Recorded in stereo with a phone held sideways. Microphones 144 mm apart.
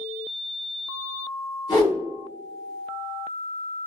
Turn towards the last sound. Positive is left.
turn(degrees=40)  # may be behind; listen again after turning